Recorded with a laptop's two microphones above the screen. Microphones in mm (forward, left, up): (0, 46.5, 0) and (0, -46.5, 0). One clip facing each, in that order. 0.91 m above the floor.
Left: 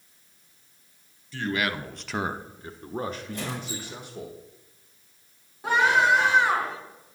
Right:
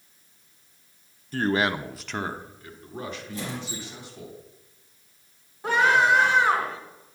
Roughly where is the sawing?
No sawing in this recording.